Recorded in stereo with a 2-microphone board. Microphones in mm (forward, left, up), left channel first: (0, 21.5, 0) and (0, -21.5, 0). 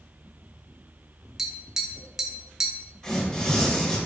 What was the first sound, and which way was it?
Tapping, 10° right (ahead or behind).